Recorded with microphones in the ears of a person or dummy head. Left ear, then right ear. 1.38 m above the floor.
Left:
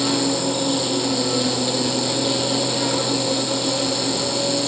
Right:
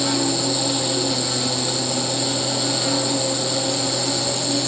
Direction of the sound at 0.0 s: 20° left (ahead or behind).